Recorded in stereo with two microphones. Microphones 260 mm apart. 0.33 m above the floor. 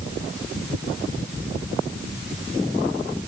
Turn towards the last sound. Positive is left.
No sound to turn to.